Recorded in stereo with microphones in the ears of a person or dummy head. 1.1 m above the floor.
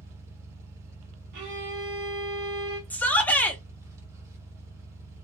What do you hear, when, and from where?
0.0 s an engine running: 20° right (ahead or behind), 0.7 m
1.3 s a violin: 55° right (ahead or behind), 1.0 m
2.9 s a shout: 10° left (ahead or behind), 0.7 m